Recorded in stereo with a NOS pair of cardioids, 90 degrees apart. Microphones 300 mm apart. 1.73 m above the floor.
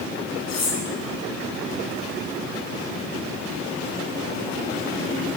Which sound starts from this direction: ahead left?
Cutlery clinking, at 0.5 s.